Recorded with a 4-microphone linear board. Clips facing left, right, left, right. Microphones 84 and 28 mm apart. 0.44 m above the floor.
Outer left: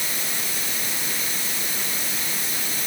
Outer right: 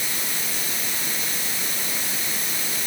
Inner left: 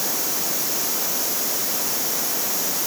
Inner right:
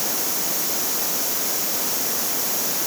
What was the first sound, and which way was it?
Only background noise.